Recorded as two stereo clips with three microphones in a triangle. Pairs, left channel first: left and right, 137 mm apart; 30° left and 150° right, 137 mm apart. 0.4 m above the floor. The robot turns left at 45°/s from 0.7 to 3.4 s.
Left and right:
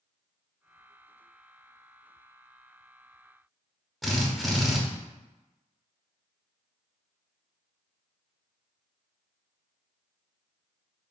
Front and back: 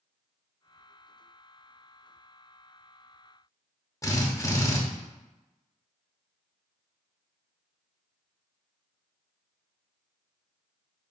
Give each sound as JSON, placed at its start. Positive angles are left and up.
{"t": 4.0, "sound": "a drill", "azimuth_deg": 0, "distance_m": 0.7}